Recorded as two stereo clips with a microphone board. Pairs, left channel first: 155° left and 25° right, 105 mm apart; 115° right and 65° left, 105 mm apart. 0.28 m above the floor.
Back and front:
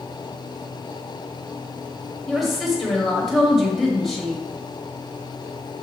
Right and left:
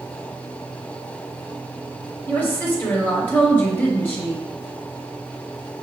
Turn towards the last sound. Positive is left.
turn(degrees=-115)